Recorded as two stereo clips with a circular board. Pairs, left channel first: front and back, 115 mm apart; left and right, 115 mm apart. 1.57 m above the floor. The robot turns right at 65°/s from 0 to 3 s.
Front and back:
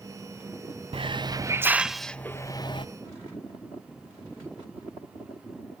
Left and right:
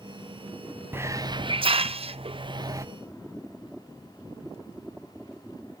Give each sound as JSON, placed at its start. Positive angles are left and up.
{"t": 0.9, "sound": "a hiss", "azimuth_deg": -155, "distance_m": 0.6}